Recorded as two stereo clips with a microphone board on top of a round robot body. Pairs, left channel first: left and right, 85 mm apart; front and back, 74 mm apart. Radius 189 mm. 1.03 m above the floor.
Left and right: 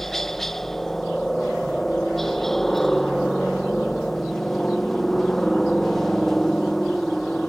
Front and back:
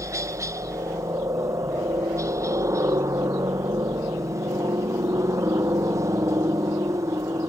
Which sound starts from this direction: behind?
A helicopter, at 0.0 s.